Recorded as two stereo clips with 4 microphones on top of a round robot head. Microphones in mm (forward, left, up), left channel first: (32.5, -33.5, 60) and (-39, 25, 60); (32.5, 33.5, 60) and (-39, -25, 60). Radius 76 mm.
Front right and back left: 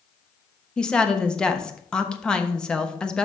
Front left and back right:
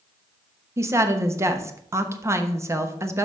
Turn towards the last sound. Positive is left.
turn(degrees=-115)